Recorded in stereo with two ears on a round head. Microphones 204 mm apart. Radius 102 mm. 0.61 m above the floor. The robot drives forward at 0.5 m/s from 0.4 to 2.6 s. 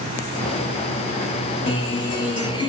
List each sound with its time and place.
1.7 s a guitar: 25° left (ahead or behind), 2.5 m; by 2.7 s 20° left (ahead or behind), 3 m